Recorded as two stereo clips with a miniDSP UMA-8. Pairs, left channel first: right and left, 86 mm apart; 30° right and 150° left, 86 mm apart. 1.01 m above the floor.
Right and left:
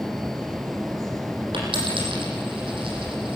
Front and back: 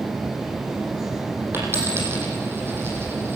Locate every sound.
1.5 s a dropped coin: 85° left, 8 m